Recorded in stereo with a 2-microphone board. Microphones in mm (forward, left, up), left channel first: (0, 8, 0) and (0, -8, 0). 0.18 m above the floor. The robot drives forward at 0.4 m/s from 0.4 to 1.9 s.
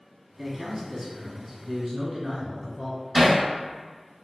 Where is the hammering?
30° right (ahead or behind), 2.0 m.